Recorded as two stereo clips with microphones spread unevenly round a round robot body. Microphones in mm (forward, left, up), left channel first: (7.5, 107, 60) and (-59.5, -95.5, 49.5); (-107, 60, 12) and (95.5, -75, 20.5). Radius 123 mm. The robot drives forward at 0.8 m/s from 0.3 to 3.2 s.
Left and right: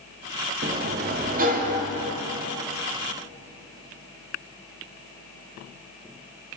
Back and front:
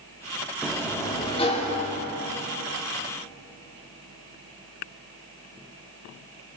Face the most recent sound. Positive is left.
turn(degrees=-165)